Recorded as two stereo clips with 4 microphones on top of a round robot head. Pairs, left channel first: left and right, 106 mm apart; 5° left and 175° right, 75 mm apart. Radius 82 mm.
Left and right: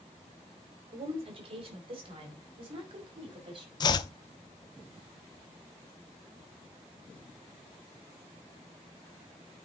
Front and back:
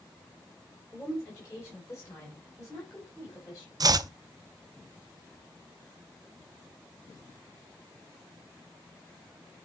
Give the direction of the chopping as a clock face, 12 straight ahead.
7 o'clock.